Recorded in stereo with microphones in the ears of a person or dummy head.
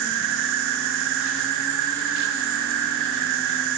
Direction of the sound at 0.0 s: 65° right (ahead or behind).